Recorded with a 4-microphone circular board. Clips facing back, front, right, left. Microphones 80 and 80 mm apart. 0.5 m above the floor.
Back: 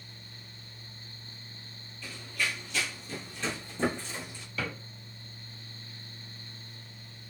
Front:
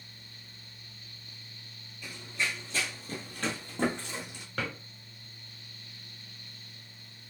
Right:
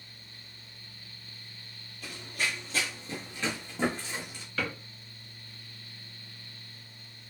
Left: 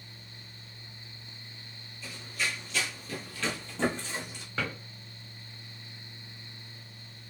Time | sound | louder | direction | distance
2.0 | running footsteps | even, right 1 dB | 75° right | 0.9 m
4.6 | a drawer | even, even | 20° left | 1.3 m